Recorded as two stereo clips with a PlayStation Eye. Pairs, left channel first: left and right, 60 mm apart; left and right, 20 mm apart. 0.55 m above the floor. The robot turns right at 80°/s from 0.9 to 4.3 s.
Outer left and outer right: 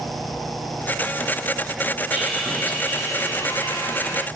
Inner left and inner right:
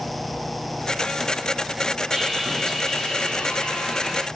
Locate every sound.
2.1 s sawing: 25° right, 5 m; by 4.3 s 150° left, 5 m